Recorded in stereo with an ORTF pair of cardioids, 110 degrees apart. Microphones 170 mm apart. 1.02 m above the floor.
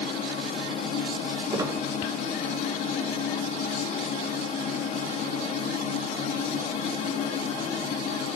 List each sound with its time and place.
0.0 s a machine running: 45° left, 1.3 m
1.5 s a squeak: 20° right, 1.0 m